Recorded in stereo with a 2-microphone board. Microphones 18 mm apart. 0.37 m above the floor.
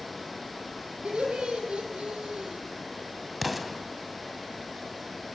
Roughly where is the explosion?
Centre.